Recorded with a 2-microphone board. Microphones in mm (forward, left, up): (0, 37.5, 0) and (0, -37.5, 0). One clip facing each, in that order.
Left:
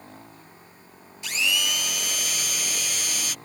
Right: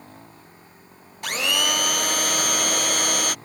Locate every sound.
1.2 s a blender: 55° right (ahead or behind)